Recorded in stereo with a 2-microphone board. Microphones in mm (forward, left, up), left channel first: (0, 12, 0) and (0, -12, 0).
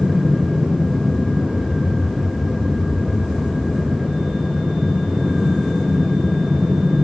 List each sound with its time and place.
0.0 s an aircraft: 20° right (ahead or behind); by 7.0 s 30° right (ahead or behind)